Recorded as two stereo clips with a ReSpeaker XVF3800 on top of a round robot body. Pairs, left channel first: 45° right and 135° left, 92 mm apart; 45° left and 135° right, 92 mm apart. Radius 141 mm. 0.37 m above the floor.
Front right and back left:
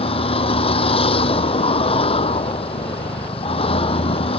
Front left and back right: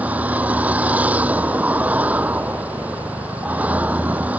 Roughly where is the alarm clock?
No alarm clock in this recording.